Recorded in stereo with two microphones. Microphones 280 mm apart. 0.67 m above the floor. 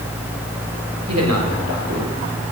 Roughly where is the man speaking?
Right.